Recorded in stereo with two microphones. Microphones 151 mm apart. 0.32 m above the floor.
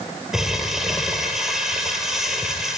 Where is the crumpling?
5° right (ahead or behind), 2 m.